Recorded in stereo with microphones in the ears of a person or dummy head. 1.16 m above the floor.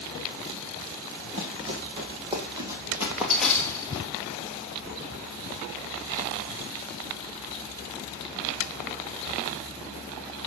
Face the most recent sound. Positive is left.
turn(degrees=30)  # may be behind; listen again after turning